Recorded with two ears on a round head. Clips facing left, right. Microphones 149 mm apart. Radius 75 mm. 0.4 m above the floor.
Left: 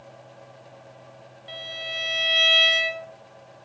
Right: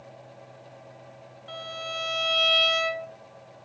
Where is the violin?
10° left (ahead or behind), 2.5 m.